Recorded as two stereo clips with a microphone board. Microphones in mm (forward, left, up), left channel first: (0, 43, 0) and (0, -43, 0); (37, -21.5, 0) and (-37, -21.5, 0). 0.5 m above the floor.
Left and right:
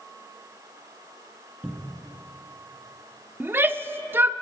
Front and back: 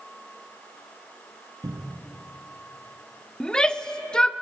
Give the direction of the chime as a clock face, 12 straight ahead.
No chime in this recording.